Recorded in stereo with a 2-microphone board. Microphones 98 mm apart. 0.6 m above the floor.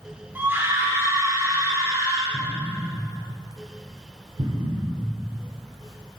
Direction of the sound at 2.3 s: 70° right (ahead or behind).